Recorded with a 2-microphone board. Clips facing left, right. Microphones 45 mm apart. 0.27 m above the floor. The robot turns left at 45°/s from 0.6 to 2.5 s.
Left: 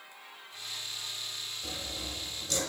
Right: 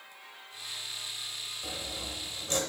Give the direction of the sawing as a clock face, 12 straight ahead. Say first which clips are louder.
Right 1 dB; 1 o'clock.